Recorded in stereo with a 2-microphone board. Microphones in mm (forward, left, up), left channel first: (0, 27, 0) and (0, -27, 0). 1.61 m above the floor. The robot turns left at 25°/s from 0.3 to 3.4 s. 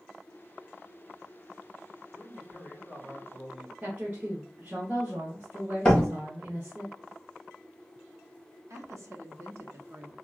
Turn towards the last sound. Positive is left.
turn(degrees=-65)  # may be behind; listen again after turning